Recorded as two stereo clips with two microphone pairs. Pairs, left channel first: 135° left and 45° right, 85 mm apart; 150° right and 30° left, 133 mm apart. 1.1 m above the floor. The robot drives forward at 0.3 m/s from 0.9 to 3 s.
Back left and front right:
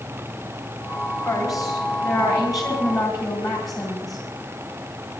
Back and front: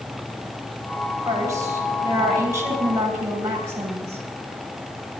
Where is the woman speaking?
95° left, 9.5 m; by 4.2 s 100° left, 9.5 m.